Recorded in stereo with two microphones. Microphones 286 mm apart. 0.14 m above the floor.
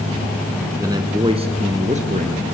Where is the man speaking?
10° right (ahead or behind), 1.0 m; by 2.4 s 25° right (ahead or behind), 2.5 m.